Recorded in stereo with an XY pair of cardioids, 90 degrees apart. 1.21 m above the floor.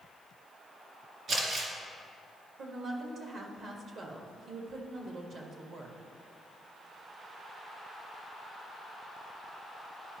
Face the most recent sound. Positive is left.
turn(degrees=-70)